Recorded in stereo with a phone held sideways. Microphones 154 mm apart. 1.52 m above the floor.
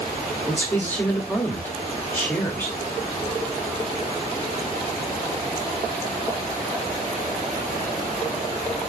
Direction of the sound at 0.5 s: 10° left (ahead or behind).